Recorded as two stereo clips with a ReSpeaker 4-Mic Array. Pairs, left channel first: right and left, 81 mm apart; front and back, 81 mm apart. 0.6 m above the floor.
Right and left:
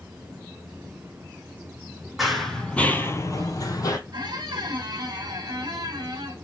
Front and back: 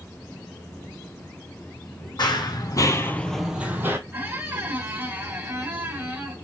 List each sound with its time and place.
2.2 s running footsteps: straight ahead, 1.3 m; by 4.0 s 125° right, 1.1 m
4.1 s a squeak: 120° left, 1.2 m